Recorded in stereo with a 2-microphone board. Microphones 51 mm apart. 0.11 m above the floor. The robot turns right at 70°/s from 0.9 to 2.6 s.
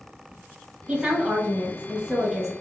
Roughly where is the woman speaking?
Centre.